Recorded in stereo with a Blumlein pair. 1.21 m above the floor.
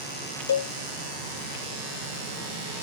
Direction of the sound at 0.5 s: 65° left.